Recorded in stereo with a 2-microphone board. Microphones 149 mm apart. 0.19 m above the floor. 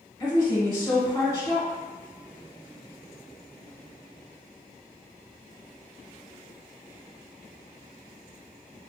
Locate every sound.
0.2 s a woman speaking: 20° left (ahead or behind), 1.4 m